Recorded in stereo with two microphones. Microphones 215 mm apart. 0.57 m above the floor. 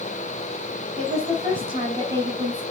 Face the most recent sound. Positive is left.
turn(degrees=-20)  # may be behind; listen again after turning